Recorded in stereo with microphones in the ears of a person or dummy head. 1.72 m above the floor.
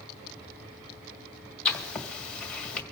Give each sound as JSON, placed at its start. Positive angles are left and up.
{"t": 1.6, "sound": "writing", "side_deg": 5, "distance_m": 1.8}